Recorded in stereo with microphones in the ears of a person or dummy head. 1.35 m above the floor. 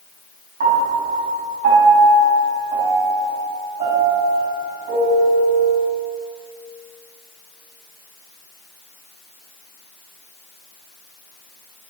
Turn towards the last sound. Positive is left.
turn(degrees=-45)  # may be behind; listen again after turning